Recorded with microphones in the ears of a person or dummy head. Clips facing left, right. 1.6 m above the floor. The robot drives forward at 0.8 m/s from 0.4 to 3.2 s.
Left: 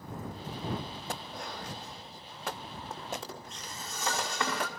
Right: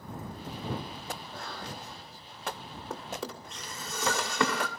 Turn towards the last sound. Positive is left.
turn(degrees=-55)  # may be behind; listen again after turning